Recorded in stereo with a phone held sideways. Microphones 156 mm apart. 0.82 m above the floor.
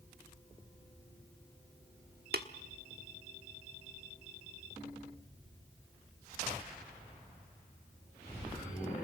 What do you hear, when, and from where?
2.3 s tapping: 80° right, 1.2 m